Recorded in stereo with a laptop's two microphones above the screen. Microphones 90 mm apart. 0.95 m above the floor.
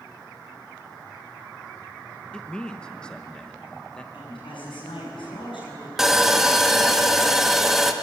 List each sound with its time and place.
2.3 s a man speaking: 10° left (ahead or behind), 0.9 m
4.1 s a woman speaking: 75° left (ahead or behind), 8.5 m
6.0 s sawing: 5° right (ahead or behind), 1.5 m